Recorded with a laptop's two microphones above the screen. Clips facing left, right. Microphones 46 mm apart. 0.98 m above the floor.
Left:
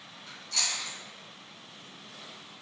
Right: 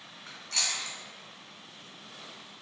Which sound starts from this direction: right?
Chewing, at 0.3 s.